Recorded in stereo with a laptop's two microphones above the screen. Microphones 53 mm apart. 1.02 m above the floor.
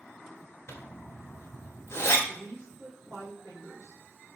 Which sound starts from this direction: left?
A zipper, at 0.7 s.